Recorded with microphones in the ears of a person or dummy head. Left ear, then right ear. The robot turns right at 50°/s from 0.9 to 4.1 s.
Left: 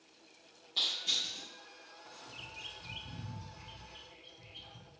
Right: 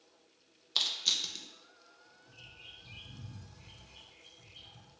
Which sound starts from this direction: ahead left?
A bird, at 2.3 s.